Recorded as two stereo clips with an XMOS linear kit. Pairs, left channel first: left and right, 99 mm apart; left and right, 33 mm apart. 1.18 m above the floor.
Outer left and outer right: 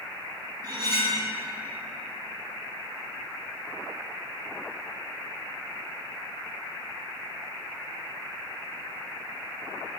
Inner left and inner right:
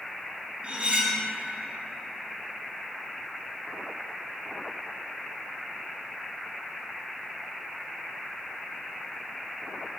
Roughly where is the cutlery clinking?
Right.